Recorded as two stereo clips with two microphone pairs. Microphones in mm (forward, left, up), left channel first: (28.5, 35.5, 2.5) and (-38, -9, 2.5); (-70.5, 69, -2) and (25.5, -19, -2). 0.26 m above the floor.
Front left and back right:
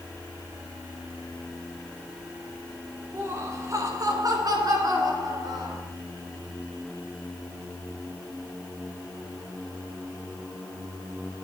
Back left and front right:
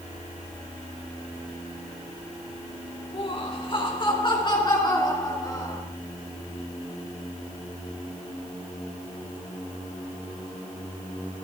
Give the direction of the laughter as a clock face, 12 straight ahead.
6 o'clock.